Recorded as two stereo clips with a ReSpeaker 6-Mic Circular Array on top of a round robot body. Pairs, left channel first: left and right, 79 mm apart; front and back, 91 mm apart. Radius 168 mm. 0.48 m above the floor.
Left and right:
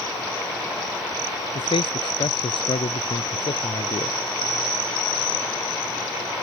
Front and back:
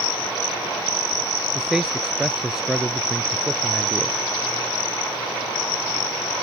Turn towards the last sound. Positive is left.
turn(degrees=95)